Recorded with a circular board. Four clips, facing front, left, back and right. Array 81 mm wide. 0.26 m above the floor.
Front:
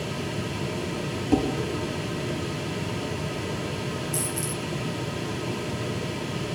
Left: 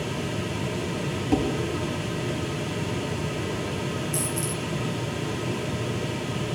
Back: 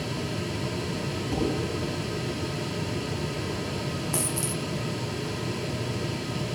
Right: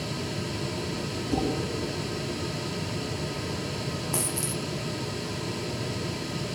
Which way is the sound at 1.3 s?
50° left.